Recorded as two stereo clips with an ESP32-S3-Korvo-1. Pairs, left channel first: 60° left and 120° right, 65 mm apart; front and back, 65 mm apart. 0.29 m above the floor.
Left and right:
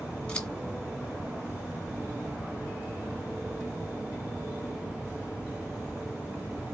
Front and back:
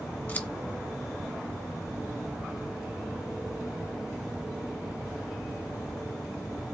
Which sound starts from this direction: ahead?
Scissors, at 0.3 s.